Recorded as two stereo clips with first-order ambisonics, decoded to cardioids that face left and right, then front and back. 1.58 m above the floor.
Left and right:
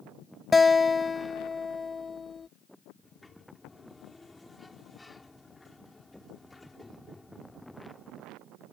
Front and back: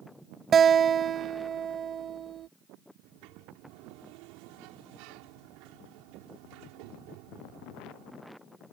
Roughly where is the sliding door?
Behind.